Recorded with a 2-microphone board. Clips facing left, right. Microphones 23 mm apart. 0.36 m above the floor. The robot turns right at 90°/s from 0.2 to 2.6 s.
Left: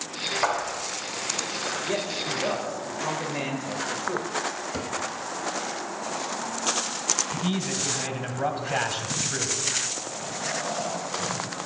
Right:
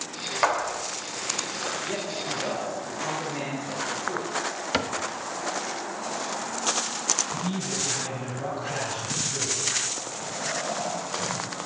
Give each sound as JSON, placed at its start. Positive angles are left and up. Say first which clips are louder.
{"t": 0.4, "sound": "a clap", "louder": "right 4 dB", "azimuth_deg": -145, "distance_m": 1.2}
{"t": 1.9, "sound": "a man speaking", "louder": "left 2 dB", "side_deg": 35, "distance_m": 1.3}
{"t": 4.7, "sound": "a cupboard door", "louder": "right 4 dB", "side_deg": -75, "distance_m": 0.6}
{"t": 7.3, "sound": "a man speaking", "louder": "left 2 dB", "side_deg": 50, "distance_m": 2.5}